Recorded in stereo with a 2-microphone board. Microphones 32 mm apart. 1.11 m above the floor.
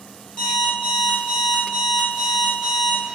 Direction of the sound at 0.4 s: 45° left (ahead or behind).